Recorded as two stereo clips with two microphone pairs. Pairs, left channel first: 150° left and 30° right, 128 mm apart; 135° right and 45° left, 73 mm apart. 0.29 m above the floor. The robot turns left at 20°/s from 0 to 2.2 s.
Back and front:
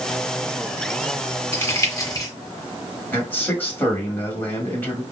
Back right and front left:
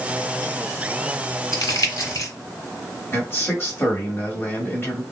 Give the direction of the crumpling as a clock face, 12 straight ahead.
5 o'clock.